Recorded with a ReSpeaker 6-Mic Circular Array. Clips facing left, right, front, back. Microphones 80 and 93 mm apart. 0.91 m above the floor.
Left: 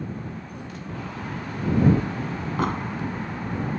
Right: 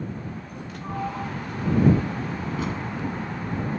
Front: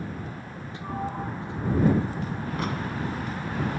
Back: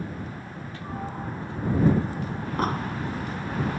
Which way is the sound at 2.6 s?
130° left.